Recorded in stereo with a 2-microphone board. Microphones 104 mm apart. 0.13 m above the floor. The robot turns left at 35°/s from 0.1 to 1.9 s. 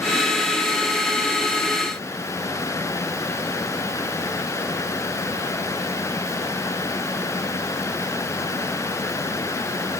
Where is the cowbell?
I don't hear a cowbell.